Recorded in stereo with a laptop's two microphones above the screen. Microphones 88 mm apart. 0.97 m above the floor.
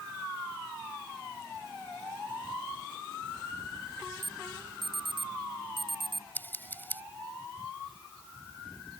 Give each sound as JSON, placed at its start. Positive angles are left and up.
{"t": 4.2, "sound": "an alarm", "side_deg": -65}
{"t": 6.3, "sound": "scissors", "side_deg": 20}